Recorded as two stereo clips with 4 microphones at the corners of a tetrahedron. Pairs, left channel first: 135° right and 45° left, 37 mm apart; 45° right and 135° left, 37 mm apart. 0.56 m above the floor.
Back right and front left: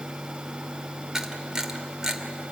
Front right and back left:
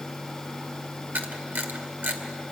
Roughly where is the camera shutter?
Behind left.